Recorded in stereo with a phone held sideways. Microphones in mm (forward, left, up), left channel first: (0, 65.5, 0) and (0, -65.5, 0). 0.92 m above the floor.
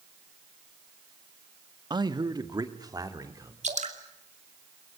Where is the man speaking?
35° right (ahead or behind), 1.2 m; by 3.5 s 25° right (ahead or behind), 2.5 m.